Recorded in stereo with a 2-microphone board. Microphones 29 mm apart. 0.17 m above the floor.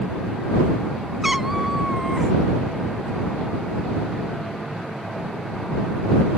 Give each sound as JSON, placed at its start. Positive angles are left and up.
{"t": 1.2, "sound": "a cat meowing", "side_deg": -10}